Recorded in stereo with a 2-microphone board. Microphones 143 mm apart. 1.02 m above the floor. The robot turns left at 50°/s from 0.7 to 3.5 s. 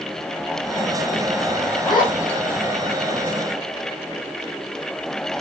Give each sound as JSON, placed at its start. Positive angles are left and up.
{"t": 1.8, "sound": "a zipper", "side_deg": 25, "distance_m": 8.5}